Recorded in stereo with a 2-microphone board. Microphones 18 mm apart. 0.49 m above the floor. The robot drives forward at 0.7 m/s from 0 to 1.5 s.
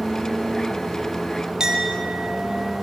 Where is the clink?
40° right (ahead or behind), 5 m.